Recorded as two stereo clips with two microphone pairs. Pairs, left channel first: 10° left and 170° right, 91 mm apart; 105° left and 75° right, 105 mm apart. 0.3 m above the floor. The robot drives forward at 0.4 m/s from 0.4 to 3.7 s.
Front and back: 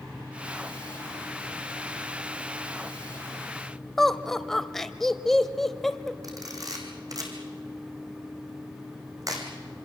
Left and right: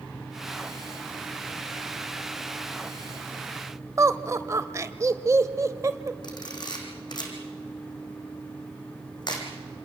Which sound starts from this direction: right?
Laughter, at 4.0 s.